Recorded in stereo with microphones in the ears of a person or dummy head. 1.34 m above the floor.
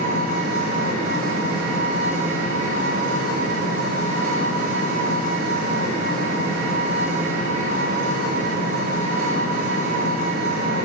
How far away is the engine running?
About 8.5 m.